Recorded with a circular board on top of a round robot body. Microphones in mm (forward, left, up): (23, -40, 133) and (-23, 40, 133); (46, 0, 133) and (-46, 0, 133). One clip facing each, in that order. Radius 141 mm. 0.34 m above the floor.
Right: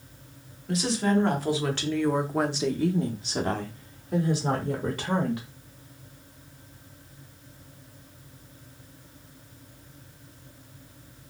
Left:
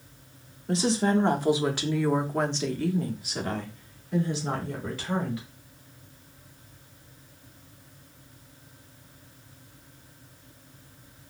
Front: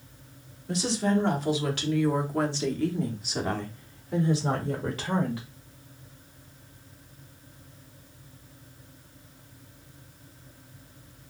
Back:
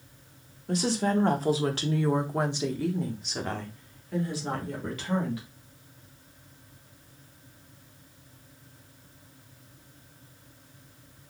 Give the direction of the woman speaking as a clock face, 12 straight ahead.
6 o'clock.